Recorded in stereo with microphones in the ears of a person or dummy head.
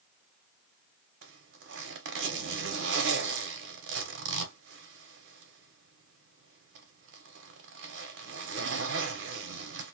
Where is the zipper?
60° right (ahead or behind), 1.0 m.